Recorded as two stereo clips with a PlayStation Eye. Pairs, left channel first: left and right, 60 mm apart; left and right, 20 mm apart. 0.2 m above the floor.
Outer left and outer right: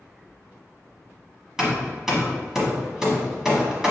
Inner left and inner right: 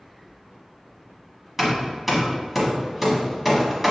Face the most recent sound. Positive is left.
turn(degrees=-10)  # may be behind; listen again after turning